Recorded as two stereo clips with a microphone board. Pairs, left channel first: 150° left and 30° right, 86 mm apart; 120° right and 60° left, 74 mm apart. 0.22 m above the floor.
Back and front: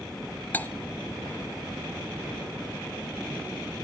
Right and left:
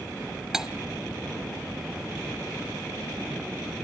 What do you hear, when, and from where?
0.5 s cutlery clinking: 130° left, 0.6 m